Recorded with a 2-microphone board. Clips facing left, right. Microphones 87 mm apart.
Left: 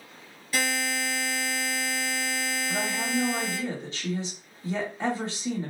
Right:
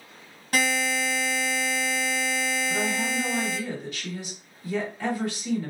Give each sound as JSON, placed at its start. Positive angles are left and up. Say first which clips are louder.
{"t": 0.5, "sound": "a buzzer", "louder": "right 3 dB", "side_deg": -60, "distance_m": 1.2}
{"t": 2.7, "sound": "a woman speaking", "louder": "right 1 dB", "side_deg": 30, "distance_m": 1.2}